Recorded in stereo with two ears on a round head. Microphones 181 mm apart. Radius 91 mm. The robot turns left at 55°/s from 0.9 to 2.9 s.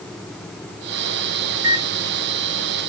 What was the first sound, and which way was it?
A microwave, 10° right (ahead or behind).